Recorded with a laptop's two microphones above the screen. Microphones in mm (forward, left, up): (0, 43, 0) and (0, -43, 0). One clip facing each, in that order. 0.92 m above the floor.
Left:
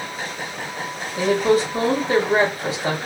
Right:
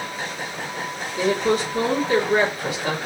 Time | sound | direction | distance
1.2 | a woman speaking | 35° left (ahead or behind) | 1.4 m